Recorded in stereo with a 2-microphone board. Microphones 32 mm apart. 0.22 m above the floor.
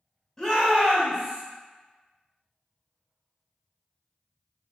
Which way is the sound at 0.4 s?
15° left (ahead or behind).